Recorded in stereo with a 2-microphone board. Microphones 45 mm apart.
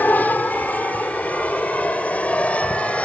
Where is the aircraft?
45° left (ahead or behind); by 3.0 s 30° left (ahead or behind).